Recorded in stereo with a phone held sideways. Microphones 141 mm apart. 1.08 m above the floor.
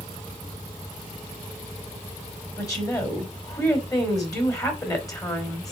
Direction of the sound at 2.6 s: 25° left (ahead or behind).